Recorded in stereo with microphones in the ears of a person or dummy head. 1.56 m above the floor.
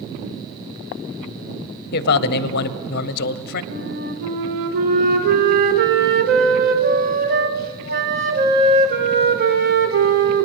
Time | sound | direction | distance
1.9 | a man speaking | 55° left (ahead or behind) | 0.7 m
3.7 | a flute | 55° right (ahead or behind) | 1.2 m